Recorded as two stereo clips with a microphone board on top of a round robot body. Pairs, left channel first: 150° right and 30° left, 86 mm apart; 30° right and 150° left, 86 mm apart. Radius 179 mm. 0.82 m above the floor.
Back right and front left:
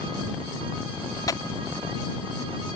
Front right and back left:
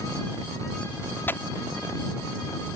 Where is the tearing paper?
100° right.